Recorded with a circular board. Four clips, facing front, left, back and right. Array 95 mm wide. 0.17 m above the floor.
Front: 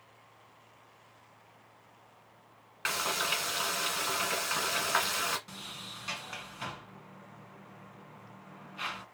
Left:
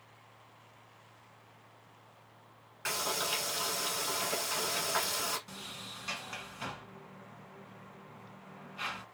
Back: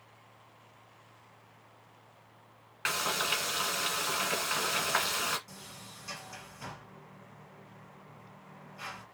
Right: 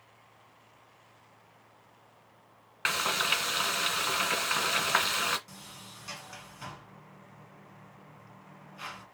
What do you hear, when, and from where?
2.9 s frying: 90° right, 1.3 m
5.5 s a sliding door: 25° left, 1.5 m